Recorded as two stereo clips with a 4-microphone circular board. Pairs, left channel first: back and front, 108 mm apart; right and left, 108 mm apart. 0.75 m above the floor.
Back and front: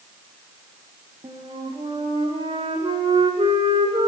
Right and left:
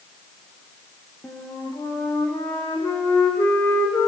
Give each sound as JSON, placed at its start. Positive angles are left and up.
{"t": 1.2, "sound": "a flute", "azimuth_deg": -20, "distance_m": 7.0}